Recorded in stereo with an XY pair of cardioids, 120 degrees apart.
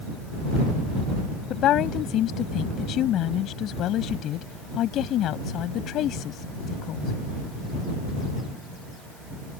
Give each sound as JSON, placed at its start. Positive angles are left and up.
{"t": 1.5, "sound": "a woman speaking", "azimuth_deg": 65}